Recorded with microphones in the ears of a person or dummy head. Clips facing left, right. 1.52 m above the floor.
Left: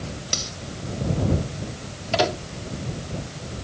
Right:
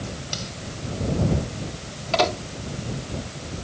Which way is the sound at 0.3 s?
70° left (ahead or behind).